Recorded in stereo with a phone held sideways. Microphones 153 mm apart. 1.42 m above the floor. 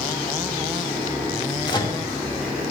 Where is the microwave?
30° left (ahead or behind), 1.3 m.